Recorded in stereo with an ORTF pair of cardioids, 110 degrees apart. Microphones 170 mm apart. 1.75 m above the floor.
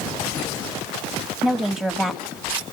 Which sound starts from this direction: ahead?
A woman speaking, at 1.4 s.